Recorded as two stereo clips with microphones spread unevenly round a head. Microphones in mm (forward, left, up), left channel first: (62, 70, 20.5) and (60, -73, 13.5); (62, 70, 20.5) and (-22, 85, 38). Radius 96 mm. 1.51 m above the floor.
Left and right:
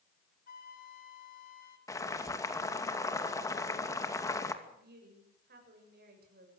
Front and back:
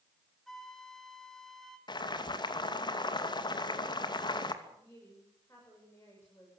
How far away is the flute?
About 2.5 m.